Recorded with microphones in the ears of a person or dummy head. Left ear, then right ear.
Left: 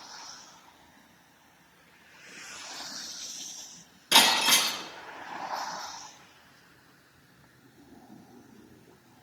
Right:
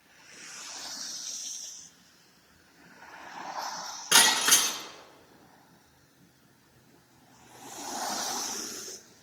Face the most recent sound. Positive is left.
turn(degrees=-40)  # may be behind; listen again after turning